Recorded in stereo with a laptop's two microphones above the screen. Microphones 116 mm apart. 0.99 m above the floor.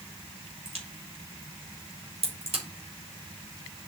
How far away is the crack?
About 3 m.